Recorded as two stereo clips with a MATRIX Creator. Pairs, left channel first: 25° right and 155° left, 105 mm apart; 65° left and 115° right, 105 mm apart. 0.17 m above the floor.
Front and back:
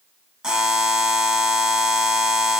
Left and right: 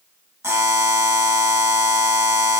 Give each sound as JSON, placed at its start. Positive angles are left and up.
{"t": 0.4, "sound": "a buzzer", "azimuth_deg": -130, "distance_m": 1.1}